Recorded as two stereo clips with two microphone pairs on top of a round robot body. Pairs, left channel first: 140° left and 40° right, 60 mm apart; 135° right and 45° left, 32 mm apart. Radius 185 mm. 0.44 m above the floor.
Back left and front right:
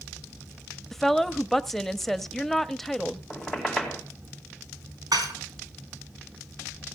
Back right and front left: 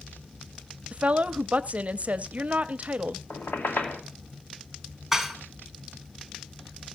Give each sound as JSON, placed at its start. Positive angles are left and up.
{"t": 0.9, "sound": "a woman speaking", "azimuth_deg": 65, "distance_m": 0.9}
{"t": 3.3, "sound": "a squeak", "azimuth_deg": -135, "distance_m": 2.5}
{"t": 5.1, "sound": "dishes clattering", "azimuth_deg": -45, "distance_m": 2.5}